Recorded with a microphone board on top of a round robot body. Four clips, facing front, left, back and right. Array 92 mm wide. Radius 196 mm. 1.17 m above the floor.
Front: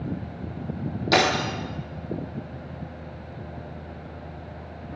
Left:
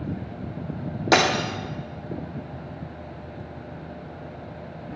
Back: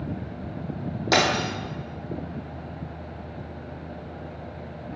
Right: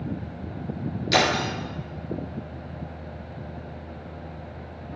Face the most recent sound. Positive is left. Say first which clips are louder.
# left 2 dB, front 1 dB
turn(degrees=100)